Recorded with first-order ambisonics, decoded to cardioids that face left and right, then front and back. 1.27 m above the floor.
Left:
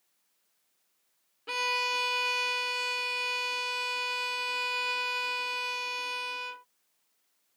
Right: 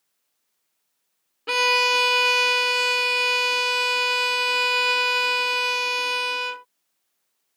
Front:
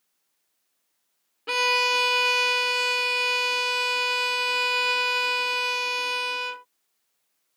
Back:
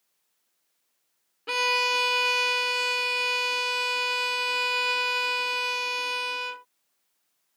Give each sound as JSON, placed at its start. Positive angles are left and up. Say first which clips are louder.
{"t": 1.5, "sound": "a violin", "louder": "right 10 dB, front 2 dB", "azimuth_deg": -80}